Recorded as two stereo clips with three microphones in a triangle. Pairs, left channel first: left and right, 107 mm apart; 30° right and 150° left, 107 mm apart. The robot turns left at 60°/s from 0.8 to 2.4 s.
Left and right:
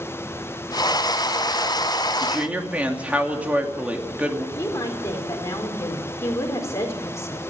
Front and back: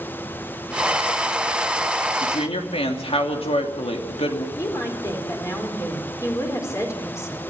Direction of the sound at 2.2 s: 5° right.